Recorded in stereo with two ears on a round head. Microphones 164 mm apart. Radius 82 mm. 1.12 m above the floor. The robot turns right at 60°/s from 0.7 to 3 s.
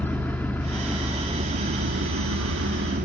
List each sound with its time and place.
0.0 s an engine running: 170° left, 1.7 m; by 3.0 s 50° right, 1.7 m